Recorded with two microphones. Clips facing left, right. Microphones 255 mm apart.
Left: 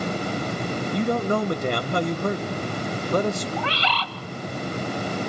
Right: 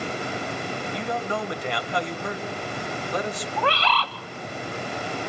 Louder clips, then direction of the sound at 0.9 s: Left 8 dB; 50° left (ahead or behind).